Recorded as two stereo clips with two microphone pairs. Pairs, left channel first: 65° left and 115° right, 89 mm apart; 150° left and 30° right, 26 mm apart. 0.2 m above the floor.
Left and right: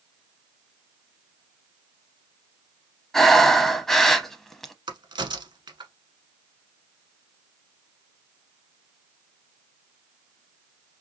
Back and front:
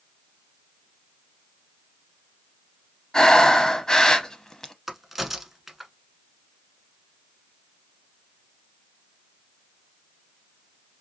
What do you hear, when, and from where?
3.1 s breathing: 150° left, 0.7 m
4.9 s a crack: 115° right, 0.9 m